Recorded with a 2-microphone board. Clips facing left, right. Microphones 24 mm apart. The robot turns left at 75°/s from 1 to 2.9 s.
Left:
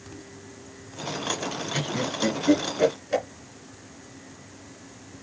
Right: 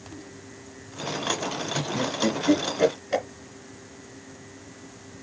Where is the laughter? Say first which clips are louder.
Even; 60° left (ahead or behind), 2.5 m; by 3.2 s 15° right (ahead or behind), 2.5 m.